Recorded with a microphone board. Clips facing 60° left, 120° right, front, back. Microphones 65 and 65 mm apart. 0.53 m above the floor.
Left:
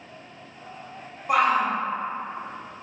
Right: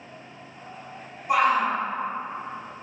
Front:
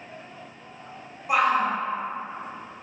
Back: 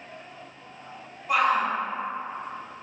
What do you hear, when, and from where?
1.3 s a shout: 70° left, 1.1 m